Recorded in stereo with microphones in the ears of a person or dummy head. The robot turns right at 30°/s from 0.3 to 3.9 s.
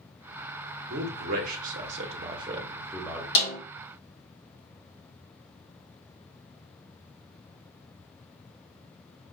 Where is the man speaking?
60° right (ahead or behind), 1.1 m; by 3.2 s 5° right (ahead or behind), 1.1 m.